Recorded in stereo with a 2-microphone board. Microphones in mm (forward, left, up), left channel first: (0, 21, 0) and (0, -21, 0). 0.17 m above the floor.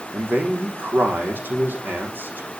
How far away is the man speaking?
About 7.5 m.